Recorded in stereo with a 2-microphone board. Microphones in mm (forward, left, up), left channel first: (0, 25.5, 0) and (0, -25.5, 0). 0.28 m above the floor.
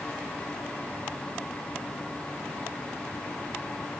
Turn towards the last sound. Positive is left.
No sound to turn to.